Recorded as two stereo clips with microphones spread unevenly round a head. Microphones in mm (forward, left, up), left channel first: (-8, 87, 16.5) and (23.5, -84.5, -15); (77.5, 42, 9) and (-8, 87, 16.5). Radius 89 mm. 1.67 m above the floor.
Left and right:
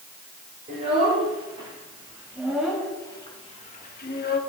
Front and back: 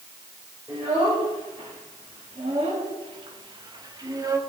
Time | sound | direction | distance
0.7 | a child speaking | 135° right | 3 m